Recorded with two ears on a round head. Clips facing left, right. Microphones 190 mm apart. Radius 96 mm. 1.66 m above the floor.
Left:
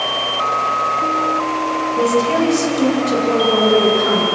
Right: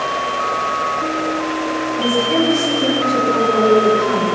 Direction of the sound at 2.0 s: 90° left.